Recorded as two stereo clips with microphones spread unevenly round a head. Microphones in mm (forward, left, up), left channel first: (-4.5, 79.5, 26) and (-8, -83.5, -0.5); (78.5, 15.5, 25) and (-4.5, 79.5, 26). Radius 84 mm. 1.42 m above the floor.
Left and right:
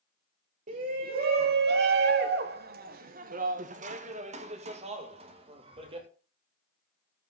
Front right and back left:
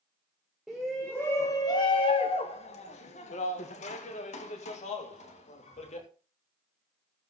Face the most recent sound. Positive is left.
turn(degrees=-35)